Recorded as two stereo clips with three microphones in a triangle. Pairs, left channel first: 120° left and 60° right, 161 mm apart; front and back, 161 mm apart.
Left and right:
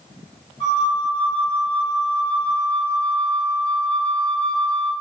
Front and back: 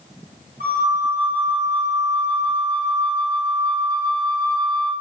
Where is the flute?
175° left, 1.0 m.